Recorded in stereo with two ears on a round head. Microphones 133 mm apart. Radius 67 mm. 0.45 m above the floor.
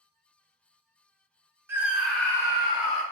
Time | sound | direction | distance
1.7 | a scream | 15° right (ahead or behind) | 0.9 m